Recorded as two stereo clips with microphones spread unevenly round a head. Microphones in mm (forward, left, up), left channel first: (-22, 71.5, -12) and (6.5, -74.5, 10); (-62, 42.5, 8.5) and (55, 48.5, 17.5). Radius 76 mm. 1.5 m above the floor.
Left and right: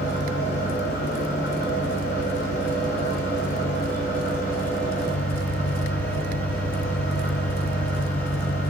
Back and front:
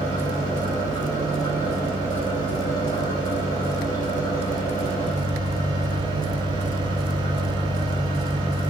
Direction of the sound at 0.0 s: 130° left.